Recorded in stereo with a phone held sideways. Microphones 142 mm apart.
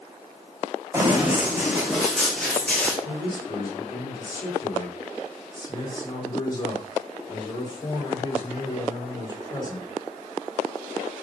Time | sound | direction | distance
0.9 | running footsteps | 15° right (ahead or behind) | 5 m
3.0 | a man speaking | 30° left (ahead or behind) | 7 m